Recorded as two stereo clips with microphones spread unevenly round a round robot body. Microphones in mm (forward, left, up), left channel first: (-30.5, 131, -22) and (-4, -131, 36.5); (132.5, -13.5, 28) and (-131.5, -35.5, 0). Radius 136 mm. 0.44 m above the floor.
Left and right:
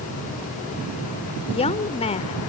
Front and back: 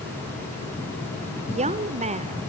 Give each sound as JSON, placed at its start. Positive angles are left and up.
{"t": 1.5, "sound": "a woman speaking", "azimuth_deg": 140, "distance_m": 0.9}